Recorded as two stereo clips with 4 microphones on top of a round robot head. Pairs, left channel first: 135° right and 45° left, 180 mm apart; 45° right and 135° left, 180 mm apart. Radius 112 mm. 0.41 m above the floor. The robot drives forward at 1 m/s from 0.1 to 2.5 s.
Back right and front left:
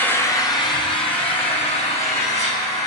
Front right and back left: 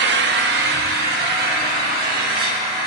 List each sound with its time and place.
0.0 s an engine running: 150° left, 0.9 m; by 2.9 s 170° left, 3 m